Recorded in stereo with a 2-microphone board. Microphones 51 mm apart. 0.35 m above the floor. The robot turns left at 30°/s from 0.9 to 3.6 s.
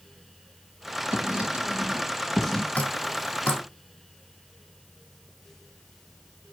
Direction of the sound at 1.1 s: 35° right (ahead or behind).